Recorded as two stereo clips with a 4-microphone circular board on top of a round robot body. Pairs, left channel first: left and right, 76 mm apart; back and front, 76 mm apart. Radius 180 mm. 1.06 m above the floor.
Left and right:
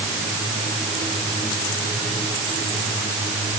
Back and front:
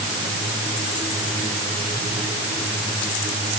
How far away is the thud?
I don't hear a thud.